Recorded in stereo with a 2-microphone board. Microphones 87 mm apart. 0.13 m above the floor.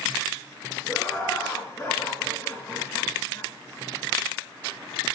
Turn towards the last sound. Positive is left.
turn(degrees=25)  # may be behind; listen again after turning